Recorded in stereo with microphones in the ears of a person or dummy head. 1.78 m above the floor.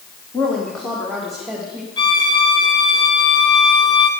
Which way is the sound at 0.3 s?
10° left (ahead or behind).